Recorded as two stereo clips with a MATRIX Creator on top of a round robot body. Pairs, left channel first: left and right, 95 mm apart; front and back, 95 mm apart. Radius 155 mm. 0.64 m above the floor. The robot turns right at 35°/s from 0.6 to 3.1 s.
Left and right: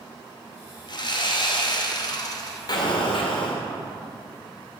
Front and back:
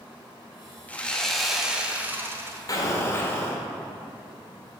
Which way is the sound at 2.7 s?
50° left.